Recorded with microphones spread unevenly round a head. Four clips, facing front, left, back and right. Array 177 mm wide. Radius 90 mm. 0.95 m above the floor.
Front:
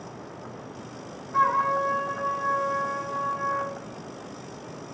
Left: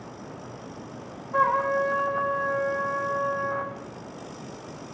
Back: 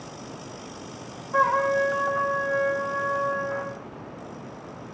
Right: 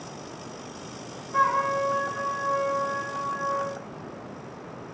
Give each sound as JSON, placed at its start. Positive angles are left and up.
{"t": 1.3, "sound": "a trumpet", "azimuth_deg": 155, "distance_m": 2.5}